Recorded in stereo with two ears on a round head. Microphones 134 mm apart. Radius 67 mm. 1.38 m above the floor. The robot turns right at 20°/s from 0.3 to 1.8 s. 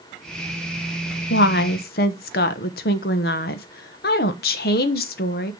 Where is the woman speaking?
85° left, 0.9 m; by 5.5 s 75° left (ahead or behind), 0.9 m.